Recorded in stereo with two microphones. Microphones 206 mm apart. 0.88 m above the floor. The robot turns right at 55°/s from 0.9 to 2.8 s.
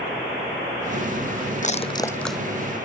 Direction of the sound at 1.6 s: 40° left (ahead or behind).